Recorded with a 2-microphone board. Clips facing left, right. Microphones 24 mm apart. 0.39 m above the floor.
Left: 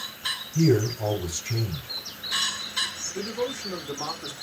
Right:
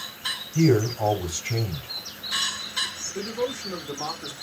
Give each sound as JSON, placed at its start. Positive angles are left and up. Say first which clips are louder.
{"t": 0.6, "sound": "a man speaking", "louder": "right 2 dB", "side_deg": -50, "distance_m": 1.2}
{"t": 3.1, "sound": "a man speaking", "louder": "right 2 dB", "side_deg": -25, "distance_m": 0.8}